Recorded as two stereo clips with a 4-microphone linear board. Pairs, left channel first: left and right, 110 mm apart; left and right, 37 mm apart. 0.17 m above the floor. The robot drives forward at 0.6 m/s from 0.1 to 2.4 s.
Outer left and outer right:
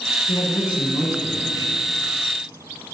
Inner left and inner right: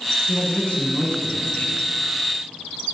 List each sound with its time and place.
0.3 s a man speaking: 35° left (ahead or behind), 1.4 m